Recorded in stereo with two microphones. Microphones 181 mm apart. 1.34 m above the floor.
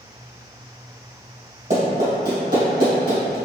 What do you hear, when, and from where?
1.7 s running footsteps: 50° right (ahead or behind), 1.9 m; by 3.4 s 65° right (ahead or behind), 3 m